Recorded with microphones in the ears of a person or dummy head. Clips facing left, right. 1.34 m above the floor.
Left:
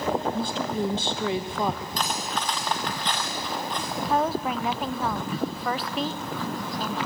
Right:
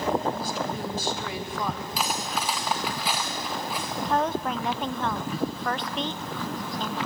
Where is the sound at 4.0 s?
5° left (ahead or behind), 0.5 m.